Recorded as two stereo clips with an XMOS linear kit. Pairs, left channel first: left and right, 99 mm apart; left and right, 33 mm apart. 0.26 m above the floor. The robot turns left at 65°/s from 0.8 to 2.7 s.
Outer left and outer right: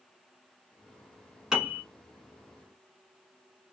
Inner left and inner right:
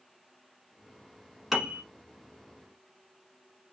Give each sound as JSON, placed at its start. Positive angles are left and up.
{"t": 1.5, "sound": "a piano", "side_deg": -5, "distance_m": 0.9}